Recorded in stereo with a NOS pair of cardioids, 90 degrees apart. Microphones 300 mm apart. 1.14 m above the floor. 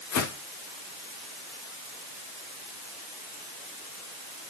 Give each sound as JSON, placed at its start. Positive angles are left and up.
{"t": 0.1, "sound": "footsteps", "azimuth_deg": 55, "distance_m": 4.5}